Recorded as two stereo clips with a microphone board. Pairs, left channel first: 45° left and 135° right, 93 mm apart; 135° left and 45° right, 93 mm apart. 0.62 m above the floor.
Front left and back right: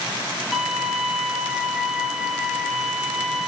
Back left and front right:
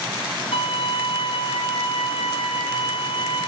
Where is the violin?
140° left, 1.6 m.